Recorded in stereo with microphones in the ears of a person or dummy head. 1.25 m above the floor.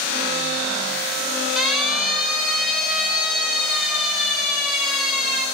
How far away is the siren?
About 8.5 m.